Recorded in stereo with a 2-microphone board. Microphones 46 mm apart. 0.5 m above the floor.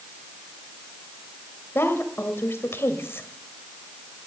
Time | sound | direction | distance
1.8 | a woman speaking | 65° left (ahead or behind) | 1.9 m